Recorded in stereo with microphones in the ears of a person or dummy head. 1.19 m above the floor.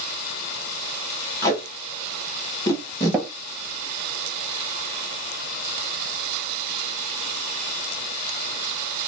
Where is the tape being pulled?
15° left (ahead or behind), 0.9 m.